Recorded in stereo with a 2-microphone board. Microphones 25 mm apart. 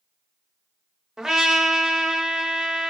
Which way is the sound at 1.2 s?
20° right (ahead or behind).